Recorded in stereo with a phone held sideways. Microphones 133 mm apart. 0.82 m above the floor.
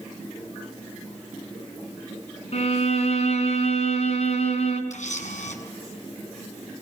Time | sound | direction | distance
2.5 | a violin | 60° left (ahead or behind) | 4 m
4.9 | a camera shutter | 70° left (ahead or behind) | 7 m